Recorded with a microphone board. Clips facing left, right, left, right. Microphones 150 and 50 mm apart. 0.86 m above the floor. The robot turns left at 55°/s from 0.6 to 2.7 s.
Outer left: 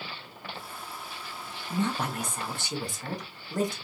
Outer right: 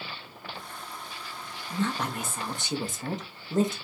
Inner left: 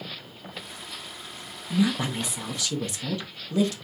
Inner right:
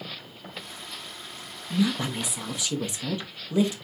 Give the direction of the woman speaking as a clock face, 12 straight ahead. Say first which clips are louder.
Even, inner left 1 dB; 11 o'clock.